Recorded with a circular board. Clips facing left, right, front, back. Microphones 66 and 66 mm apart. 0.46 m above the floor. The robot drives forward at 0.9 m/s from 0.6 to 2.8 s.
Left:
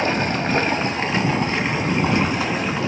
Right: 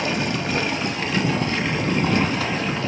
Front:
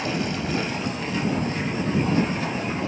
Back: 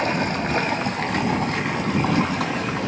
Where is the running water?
145° left, 1.6 m; by 2.9 s 165° left, 3.5 m.